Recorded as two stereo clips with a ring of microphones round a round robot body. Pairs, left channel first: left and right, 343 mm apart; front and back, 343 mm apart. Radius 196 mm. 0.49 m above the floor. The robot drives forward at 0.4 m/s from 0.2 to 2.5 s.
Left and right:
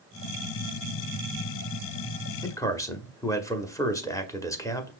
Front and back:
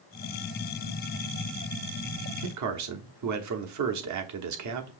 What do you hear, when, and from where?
2.4 s a man speaking: 170° left, 1.0 m